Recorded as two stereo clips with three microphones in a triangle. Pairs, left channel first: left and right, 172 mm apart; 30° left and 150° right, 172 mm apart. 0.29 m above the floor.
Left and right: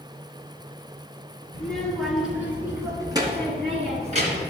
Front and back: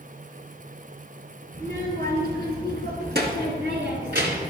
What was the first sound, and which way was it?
A child speaking, 175° left.